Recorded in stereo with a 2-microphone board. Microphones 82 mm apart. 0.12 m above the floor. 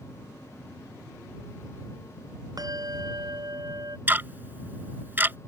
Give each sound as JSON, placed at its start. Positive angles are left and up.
{"t": 2.6, "sound": "a bell", "side_deg": -45}
{"t": 4.1, "sound": "ticking", "side_deg": -25}